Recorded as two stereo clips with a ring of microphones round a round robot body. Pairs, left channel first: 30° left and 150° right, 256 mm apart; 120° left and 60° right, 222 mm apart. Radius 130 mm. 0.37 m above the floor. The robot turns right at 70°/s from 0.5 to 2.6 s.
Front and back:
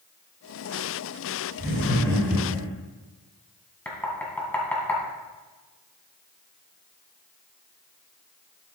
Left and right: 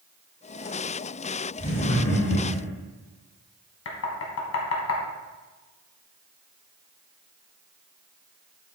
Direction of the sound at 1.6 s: 70° left.